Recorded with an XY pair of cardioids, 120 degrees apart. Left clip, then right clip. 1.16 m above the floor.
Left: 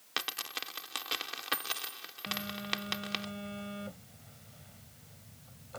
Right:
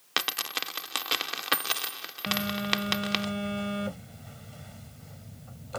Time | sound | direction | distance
0.2 | a dropped coin | 40° right | ?
2.3 | a phone buzzing | 55° right | ?